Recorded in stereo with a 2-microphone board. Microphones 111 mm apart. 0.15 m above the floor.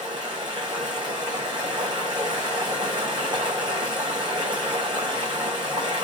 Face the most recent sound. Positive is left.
turn(degrees=-45)  # may be behind; listen again after turning